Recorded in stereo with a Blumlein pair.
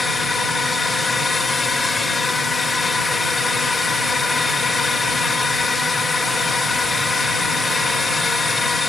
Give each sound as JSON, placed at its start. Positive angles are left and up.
{"t": 0.0, "sound": "a drone", "azimuth_deg": 10}